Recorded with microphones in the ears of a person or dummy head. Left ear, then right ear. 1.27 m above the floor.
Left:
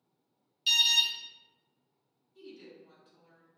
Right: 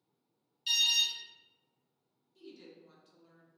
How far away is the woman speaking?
About 0.6 m.